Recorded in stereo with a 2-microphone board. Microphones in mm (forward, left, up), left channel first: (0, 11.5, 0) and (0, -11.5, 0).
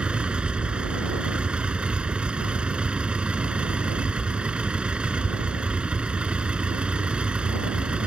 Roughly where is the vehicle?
Right.